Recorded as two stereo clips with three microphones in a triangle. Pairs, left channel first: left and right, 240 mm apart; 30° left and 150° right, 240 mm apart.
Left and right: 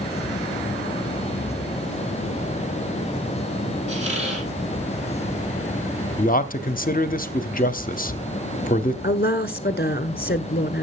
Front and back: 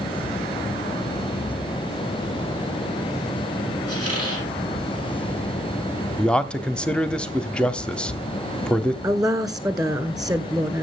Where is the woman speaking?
135° left, 1.5 m.